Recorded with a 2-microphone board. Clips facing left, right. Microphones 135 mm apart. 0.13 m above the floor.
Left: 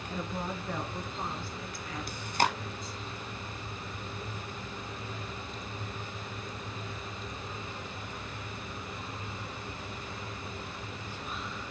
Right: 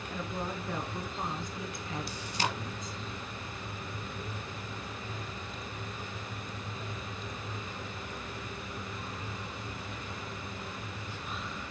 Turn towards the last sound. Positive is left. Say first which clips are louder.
# left 7 dB
turn(degrees=55)  # may be behind; listen again after turning